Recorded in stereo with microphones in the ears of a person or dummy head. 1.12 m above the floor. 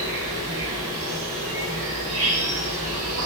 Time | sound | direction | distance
0.0 | an insect | 65° right (ahead or behind) | 1.6 m